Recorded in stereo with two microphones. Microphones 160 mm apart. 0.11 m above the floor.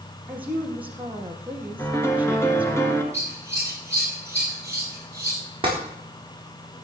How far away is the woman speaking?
About 2.5 m.